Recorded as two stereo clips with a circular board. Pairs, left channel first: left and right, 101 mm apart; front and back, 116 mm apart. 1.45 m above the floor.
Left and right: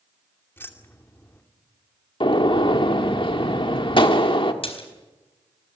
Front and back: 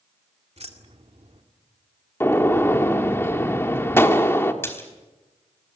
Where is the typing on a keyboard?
I don't hear typing on a keyboard.